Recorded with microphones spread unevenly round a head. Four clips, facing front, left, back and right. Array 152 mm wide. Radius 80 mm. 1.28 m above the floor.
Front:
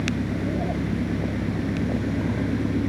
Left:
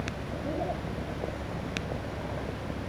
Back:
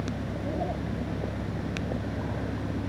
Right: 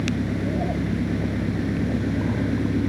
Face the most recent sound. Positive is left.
turn(degrees=-65)